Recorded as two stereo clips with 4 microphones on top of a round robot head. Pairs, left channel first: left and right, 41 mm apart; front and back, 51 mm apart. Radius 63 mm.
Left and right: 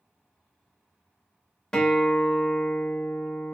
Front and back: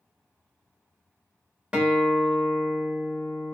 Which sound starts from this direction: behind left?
A guitar, at 1.7 s.